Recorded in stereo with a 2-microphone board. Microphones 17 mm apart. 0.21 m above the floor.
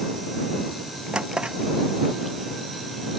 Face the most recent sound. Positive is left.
turn(degrees=-85)